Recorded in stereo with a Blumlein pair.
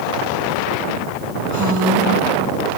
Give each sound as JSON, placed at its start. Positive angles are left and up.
{"t": 1.5, "sound": "a woman speaking", "azimuth_deg": -5, "distance_m": 10.0}